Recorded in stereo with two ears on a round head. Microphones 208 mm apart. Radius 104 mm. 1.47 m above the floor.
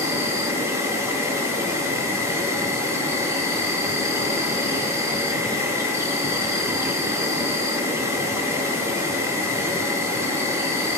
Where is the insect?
10° right (ahead or behind), 1.1 m.